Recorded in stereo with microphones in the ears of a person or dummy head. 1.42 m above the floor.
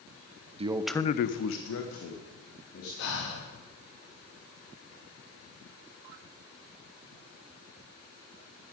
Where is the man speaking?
35° right (ahead or behind), 0.8 m; by 2.9 s 75° left (ahead or behind), 3 m.